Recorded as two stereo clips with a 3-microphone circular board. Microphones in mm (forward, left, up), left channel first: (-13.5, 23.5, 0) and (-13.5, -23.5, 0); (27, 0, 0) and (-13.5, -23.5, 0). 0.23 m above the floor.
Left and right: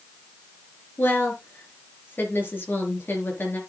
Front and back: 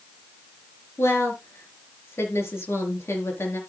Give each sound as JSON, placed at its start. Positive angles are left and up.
{"t": 1.0, "sound": "a woman speaking", "azimuth_deg": 45, "distance_m": 3.5}